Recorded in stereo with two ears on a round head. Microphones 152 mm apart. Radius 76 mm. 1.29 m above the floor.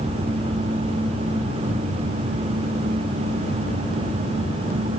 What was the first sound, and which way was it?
Only background noise.